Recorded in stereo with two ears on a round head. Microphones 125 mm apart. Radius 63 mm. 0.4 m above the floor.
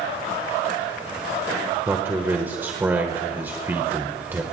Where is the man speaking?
15° right (ahead or behind), 1.2 m.